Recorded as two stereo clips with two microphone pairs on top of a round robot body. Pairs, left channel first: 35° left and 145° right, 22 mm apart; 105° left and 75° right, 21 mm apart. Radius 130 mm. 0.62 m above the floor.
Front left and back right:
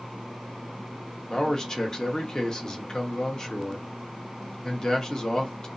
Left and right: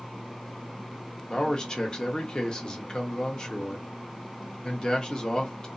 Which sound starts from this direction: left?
A man speaking, at 1.3 s.